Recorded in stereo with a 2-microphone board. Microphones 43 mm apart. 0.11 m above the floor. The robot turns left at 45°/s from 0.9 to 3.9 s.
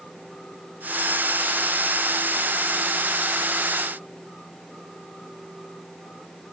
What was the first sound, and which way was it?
Only background noise.